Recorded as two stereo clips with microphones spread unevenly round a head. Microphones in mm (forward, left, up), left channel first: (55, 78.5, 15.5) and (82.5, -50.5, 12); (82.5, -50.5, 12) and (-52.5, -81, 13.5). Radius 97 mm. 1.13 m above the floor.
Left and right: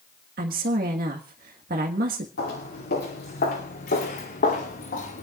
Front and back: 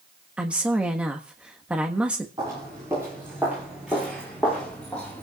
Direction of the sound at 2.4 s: 120° left.